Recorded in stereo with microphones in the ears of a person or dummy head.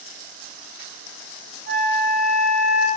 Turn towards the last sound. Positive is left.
turn(degrees=-65)  # may be behind; listen again after turning